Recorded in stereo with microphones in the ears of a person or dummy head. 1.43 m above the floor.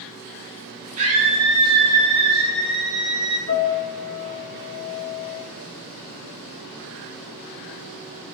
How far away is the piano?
About 1.8 m.